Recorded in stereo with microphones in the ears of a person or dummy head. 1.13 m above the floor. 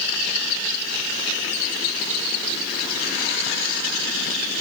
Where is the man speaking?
No man speaking in this recording.